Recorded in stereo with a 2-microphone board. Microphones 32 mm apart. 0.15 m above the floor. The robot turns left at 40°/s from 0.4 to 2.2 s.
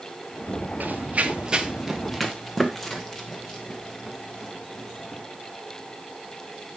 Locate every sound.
0.8 s running footsteps: 60° right (ahead or behind), 1.2 m; by 5.2 s 20° left (ahead or behind), 3.5 m